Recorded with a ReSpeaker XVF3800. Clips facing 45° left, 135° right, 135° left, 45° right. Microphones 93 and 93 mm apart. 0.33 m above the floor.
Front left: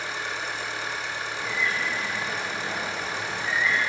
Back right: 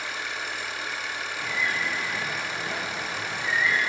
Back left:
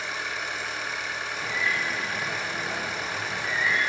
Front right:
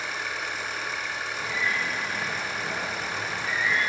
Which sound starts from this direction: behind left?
A bird, at 1.4 s.